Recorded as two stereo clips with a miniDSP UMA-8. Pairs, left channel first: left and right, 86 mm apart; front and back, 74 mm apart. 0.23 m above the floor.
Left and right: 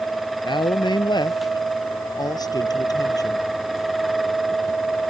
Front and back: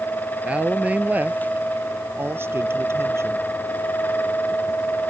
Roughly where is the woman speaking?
Left.